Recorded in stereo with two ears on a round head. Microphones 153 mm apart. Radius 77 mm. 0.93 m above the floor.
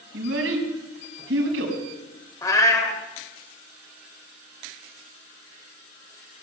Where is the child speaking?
80° right, 4.5 m.